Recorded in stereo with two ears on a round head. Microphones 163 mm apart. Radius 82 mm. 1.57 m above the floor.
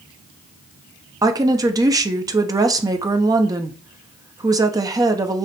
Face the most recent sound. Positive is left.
turn(degrees=-20)  # may be behind; listen again after turning